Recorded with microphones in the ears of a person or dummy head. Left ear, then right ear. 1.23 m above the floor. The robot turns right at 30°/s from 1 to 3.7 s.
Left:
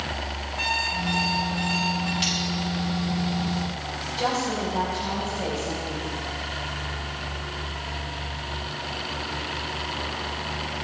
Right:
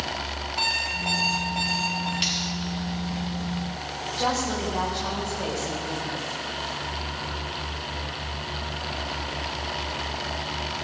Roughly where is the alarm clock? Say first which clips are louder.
Even; right.